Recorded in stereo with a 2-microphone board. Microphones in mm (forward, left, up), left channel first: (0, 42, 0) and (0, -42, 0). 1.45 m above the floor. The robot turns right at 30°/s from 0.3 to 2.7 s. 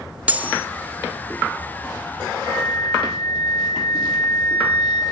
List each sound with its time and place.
0.3 s cutlery clinking: 15° right (ahead or behind), 0.8 m; by 0.7 s 10° right (ahead or behind), 0.8 m
2.4 s a flute: 70° right (ahead or behind), 10 m; by 5.0 s 60° right (ahead or behind), 10 m